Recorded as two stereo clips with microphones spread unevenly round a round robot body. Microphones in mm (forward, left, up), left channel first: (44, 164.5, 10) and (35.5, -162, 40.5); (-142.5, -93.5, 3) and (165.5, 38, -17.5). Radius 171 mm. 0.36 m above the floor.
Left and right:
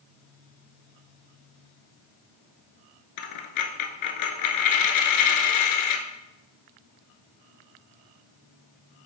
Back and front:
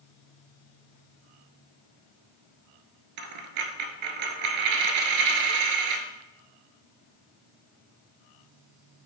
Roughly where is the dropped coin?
Ahead left.